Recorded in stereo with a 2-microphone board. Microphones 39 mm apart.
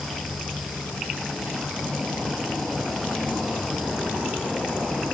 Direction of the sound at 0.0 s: 30° left (ahead or behind).